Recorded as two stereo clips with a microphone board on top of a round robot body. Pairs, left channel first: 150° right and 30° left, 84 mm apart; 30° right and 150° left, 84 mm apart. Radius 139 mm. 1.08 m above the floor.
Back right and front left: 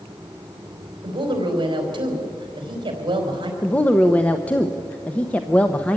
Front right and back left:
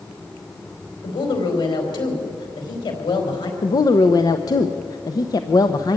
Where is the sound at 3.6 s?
75° right, 0.9 m.